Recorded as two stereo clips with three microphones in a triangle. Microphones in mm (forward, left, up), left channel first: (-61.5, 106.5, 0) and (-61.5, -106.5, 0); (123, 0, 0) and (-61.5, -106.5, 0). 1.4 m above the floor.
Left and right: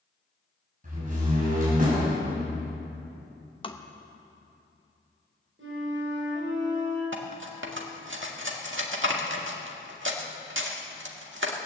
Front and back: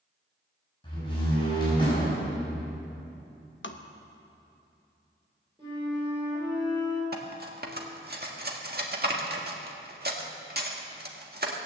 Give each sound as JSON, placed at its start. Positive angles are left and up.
{"t": 0.8, "sound": "a door slam", "azimuth_deg": -40, "distance_m": 6.0}
{"t": 3.6, "sound": "tapping", "azimuth_deg": 30, "distance_m": 0.9}
{"t": 5.6, "sound": "a flute", "azimuth_deg": -80, "distance_m": 5.5}
{"t": 7.1, "sound": "cutlery clinking", "azimuth_deg": -110, "distance_m": 1.7}